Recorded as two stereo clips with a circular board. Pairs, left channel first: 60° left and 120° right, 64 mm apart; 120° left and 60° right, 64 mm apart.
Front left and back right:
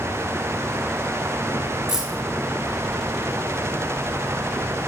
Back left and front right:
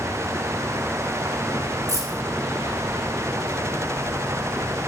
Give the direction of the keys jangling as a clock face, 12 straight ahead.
1 o'clock.